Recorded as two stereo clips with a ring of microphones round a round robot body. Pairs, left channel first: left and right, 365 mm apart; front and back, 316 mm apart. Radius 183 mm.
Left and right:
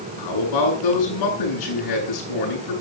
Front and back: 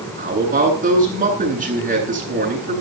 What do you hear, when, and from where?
0.2 s a man speaking: 115° left, 9.5 m